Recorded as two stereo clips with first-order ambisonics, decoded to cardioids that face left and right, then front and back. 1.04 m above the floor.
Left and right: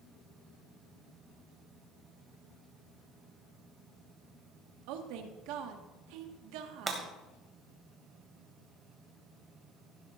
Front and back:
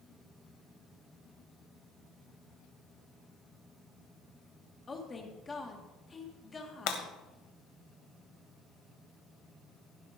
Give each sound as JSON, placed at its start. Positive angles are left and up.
{"t": 4.9, "sound": "a woman speaking", "azimuth_deg": -75, "distance_m": 1.6}
{"t": 6.9, "sound": "breaking glass", "azimuth_deg": -15, "distance_m": 1.6}